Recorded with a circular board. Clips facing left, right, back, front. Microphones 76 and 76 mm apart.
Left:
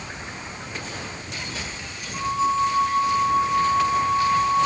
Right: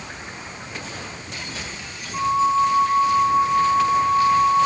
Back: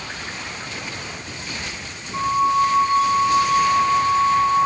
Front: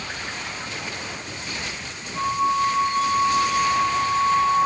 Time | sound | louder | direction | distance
2.1 | a flute | right 4 dB, back 4 dB | 160° right | 3 m